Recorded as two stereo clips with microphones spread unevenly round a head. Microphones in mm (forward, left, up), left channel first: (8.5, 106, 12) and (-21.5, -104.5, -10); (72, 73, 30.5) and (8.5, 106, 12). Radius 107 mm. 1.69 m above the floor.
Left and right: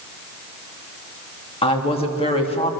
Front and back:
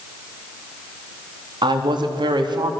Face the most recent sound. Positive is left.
turn(degrees=145)